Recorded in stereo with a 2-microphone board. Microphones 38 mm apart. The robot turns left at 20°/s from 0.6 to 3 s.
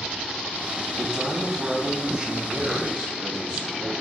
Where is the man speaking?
20° right (ahead or behind), 1.4 m; by 3.9 s 25° right (ahead or behind), 1.4 m.